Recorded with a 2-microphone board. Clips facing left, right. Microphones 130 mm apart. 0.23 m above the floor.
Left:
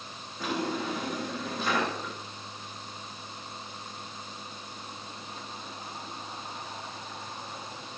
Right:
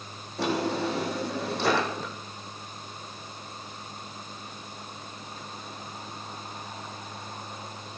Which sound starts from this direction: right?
A drawer, at 0.4 s.